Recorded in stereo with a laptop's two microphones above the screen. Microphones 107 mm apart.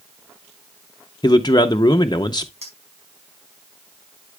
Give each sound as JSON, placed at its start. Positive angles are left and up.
{"t": 1.2, "sound": "a man speaking", "side_deg": 40, "distance_m": 0.6}
{"t": 2.6, "sound": "a clink", "side_deg": -80, "distance_m": 4.5}